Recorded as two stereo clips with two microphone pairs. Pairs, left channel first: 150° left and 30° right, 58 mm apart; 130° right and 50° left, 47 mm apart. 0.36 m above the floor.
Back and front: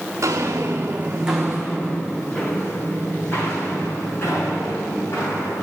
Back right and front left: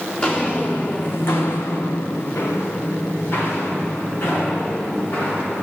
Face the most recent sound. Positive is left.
turn(degrees=-175)